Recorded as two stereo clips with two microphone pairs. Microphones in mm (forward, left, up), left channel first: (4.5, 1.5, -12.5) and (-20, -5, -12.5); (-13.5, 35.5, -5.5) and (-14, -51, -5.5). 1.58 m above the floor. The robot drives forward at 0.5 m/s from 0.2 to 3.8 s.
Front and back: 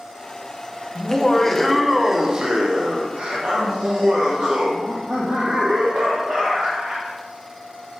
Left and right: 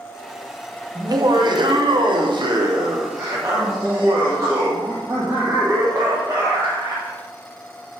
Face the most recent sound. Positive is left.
turn(degrees=-145)